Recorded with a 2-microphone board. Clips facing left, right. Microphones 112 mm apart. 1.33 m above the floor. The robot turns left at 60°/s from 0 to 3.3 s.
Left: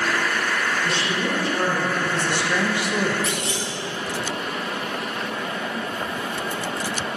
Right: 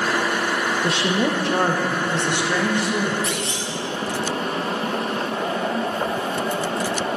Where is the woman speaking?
75° right, 1.2 m; by 3.1 s 150° left, 1.2 m.